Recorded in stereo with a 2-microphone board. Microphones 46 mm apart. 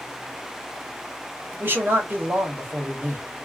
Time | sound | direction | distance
1.6 | a man speaking | 45° right (ahead or behind) | 1.1 m